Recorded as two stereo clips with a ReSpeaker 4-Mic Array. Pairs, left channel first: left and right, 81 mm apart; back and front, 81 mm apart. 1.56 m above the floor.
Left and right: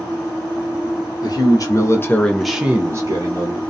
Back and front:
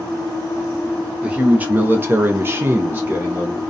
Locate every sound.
1.2 s a man speaking: 70° left, 0.9 m; by 3.6 s 75° right, 0.8 m